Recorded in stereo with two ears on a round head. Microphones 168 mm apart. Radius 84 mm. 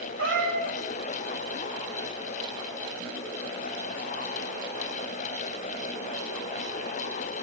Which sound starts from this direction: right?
A cat meowing, at 0.2 s.